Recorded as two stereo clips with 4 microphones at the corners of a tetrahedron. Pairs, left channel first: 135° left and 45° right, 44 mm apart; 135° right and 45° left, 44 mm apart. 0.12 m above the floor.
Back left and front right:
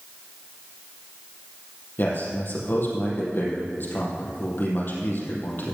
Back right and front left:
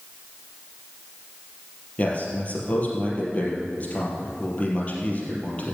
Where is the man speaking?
170° left, 3.5 m.